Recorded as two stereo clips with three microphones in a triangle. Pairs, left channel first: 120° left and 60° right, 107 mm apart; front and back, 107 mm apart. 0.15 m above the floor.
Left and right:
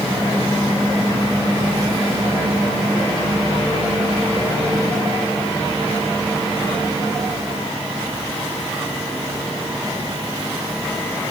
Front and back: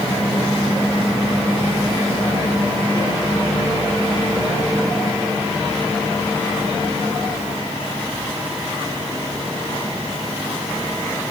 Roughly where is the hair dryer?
No hair dryer in this recording.